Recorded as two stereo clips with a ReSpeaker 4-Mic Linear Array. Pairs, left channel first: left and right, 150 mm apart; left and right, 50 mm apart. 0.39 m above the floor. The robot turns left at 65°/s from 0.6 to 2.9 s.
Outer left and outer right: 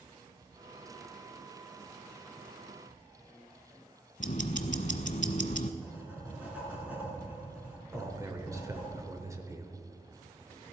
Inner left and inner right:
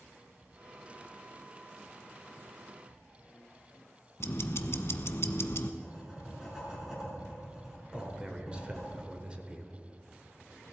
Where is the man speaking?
20° right (ahead or behind), 1.2 m.